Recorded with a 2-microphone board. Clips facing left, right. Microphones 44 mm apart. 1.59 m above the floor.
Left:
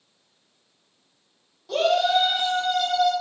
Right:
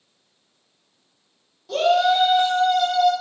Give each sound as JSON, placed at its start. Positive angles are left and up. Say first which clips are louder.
{"t": 1.7, "sound": "a shout", "louder": "right 3 dB", "side_deg": 5, "distance_m": 1.0}